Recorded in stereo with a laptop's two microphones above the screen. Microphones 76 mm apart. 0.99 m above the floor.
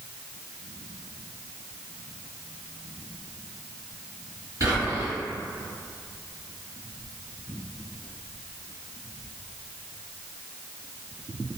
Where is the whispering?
50° right (ahead or behind), 1.6 m.